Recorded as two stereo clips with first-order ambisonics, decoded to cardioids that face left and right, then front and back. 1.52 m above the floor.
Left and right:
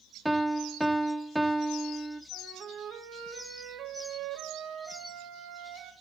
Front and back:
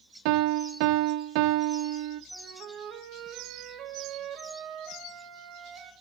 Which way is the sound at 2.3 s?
135° right.